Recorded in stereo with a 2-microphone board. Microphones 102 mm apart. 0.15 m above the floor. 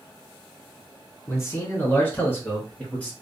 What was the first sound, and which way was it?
A man speaking, 30° left (ahead or behind).